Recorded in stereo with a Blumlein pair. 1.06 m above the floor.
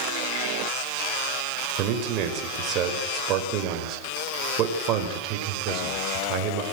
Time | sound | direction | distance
1.8 | a man speaking | 35° right | 5 m